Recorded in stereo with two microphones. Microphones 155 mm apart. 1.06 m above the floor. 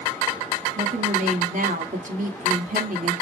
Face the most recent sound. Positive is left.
turn(degrees=-60)  # may be behind; listen again after turning